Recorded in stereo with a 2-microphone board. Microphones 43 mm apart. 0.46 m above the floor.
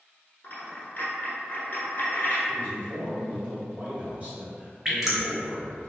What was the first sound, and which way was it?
A dropped coin, 50° left (ahead or behind).